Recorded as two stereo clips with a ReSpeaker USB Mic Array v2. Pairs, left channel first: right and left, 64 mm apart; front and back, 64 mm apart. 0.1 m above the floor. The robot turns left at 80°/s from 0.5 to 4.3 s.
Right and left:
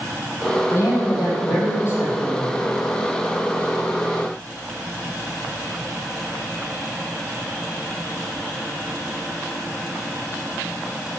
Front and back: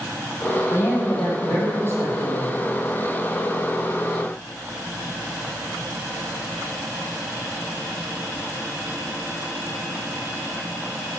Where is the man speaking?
35° right, 4 m; by 2.5 s 175° left, 4 m.